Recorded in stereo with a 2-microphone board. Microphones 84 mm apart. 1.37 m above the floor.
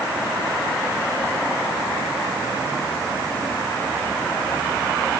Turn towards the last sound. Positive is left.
No sound to turn to.